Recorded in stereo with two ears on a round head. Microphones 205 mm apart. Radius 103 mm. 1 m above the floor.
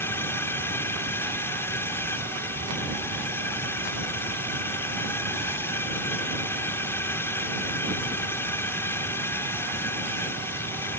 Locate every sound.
0.0 s a drone: 10° left (ahead or behind)